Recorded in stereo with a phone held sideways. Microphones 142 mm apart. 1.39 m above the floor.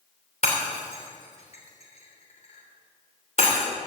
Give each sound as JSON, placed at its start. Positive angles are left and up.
{"t": 0.4, "sound": "breaking glass", "side_deg": 50, "distance_m": 3.0}